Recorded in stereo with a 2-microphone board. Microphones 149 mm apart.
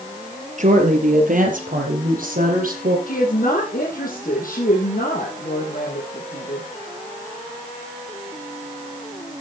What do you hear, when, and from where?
0.6 s a woman speaking: 55° right (ahead or behind), 3.5 m; by 3.0 s 70° right (ahead or behind), 6 m
3.1 s a woman speaking: 70° left (ahead or behind), 4 m